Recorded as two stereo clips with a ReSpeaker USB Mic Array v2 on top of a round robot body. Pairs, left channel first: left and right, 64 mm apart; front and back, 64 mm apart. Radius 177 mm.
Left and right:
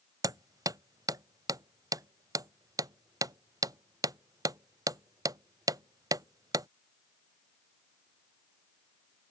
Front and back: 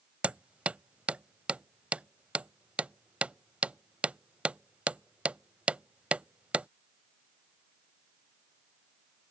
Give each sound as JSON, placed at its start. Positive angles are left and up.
{"t": 0.2, "sound": "hammering", "azimuth_deg": -110}